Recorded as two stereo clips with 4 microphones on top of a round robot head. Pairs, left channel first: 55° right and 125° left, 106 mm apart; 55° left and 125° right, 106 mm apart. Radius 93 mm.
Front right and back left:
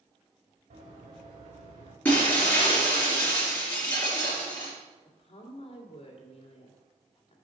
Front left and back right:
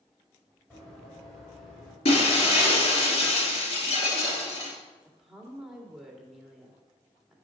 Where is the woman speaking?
40° right, 2 m.